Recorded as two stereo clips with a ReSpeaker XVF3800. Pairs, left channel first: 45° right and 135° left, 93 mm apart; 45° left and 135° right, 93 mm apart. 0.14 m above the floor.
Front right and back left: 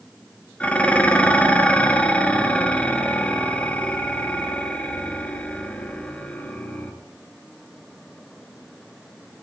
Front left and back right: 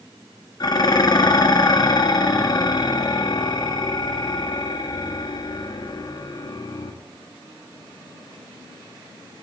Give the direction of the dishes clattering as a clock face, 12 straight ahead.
11 o'clock.